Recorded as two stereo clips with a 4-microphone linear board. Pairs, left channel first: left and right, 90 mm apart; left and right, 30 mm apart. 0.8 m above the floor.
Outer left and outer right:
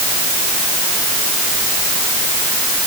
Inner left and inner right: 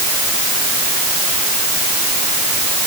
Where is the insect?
No insect in this recording.